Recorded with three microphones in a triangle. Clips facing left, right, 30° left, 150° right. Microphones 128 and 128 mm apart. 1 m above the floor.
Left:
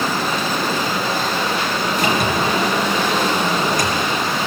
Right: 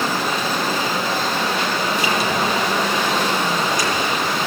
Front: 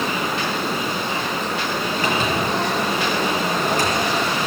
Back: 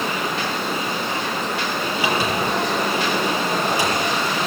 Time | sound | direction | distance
2.0 | a sliding door | 130° left | 7.5 m